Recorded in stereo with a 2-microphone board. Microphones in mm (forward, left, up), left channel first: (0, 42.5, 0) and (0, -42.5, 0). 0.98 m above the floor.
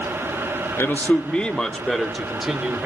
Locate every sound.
0.8 s a man speaking: 30° left (ahead or behind), 1.2 m; by 2.9 s 5° right (ahead or behind), 3 m